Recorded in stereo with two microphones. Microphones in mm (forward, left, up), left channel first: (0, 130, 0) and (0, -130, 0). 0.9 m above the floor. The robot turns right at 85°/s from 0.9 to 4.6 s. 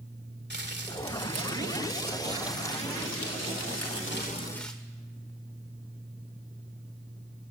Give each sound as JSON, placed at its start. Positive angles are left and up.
{"t": 0.5, "sound": "crumpling", "azimuth_deg": -140, "distance_m": 2.0}